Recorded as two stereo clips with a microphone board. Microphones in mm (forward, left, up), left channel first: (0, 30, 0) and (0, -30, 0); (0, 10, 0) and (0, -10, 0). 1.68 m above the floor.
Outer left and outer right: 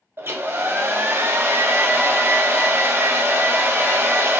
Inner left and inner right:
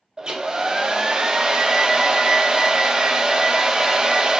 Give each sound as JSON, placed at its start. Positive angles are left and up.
{"t": 0.2, "sound": "a hair dryer", "side_deg": -45, "distance_m": 0.6}